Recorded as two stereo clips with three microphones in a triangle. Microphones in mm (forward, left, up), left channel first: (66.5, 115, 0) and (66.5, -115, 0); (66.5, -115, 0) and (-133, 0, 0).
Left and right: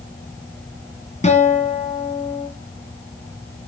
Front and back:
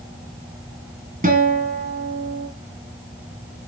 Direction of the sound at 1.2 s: 130° left.